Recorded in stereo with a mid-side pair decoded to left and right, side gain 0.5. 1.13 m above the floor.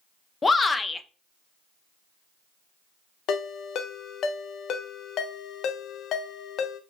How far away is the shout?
About 0.6 m.